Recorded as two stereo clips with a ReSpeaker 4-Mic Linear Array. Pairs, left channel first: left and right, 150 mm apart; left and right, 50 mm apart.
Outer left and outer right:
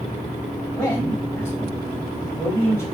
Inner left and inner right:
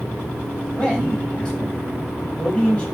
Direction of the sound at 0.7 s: 20° left (ahead or behind).